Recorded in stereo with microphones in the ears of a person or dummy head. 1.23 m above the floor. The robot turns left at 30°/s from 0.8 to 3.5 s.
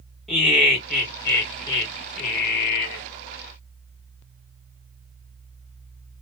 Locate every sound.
0.3 s laughter: 175° left, 1.7 m; by 3.0 s 105° left, 1.7 m